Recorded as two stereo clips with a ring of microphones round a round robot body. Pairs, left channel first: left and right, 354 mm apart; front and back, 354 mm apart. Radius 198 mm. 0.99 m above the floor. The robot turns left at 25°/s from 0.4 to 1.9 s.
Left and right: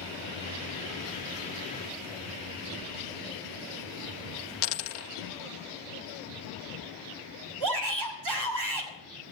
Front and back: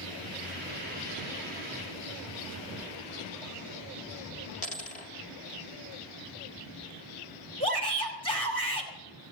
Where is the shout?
75° right, 5.5 m.